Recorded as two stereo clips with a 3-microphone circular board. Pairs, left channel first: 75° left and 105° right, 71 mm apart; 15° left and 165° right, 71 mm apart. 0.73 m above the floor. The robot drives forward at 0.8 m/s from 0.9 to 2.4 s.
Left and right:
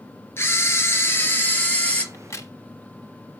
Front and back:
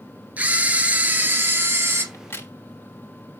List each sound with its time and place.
0.4 s a camera shutter: 125° left, 2 m; by 2.0 s 140° left, 2.5 m
2.1 s a crack: 45° left, 1.2 m; by 2.5 s 55° left, 1.2 m